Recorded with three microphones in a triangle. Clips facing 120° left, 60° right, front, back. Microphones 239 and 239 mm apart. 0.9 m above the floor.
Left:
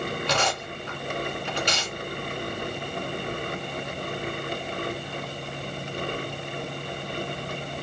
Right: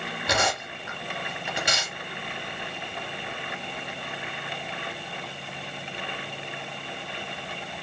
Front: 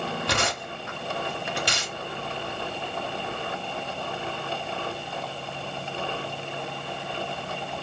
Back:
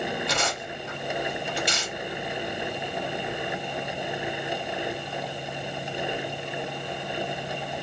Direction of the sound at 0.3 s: 20° left.